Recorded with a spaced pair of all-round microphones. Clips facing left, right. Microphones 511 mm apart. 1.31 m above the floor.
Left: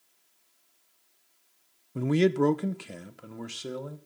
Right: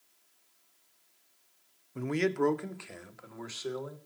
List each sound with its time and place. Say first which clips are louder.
1.9 s a man speaking: left 6 dB; 60° left (ahead or behind), 0.6 m; by 4.0 s 50° left (ahead or behind), 1.5 m